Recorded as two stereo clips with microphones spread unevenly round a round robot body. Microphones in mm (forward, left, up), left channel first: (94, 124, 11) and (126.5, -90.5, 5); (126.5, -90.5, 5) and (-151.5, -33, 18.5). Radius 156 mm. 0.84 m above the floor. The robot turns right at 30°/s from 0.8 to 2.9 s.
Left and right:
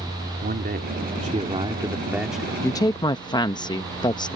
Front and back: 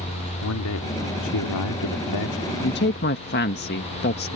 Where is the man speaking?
40° right; by 2.5 s 15° left.